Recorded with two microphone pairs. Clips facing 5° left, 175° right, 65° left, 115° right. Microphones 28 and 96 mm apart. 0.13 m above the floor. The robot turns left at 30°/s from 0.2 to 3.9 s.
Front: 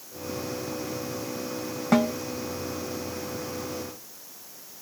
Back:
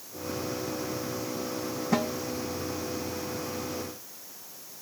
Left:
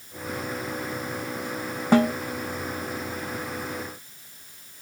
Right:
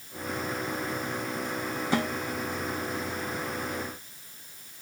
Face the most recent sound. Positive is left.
turn(degrees=-20)